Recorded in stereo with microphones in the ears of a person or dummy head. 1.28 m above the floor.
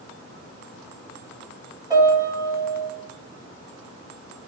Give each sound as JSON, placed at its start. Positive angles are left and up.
{"t": 1.9, "sound": "a piano", "side_deg": -25, "distance_m": 0.9}